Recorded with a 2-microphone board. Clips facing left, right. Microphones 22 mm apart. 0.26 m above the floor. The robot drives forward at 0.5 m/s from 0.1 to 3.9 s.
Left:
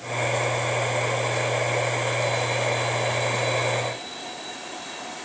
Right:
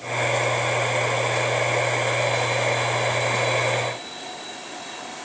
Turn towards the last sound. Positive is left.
No sound to turn to.